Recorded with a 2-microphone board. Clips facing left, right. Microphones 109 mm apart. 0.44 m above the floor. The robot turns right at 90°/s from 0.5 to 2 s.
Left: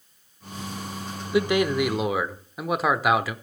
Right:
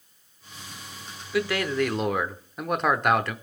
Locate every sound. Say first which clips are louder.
1.3 s a man speaking: left 4 dB; 25° left (ahead or behind), 0.8 m; by 3.4 s 5° left (ahead or behind), 0.8 m